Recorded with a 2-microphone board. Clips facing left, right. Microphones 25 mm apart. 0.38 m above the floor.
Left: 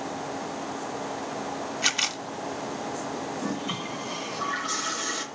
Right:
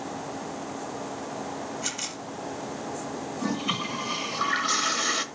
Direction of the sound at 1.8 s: 50° left (ahead or behind).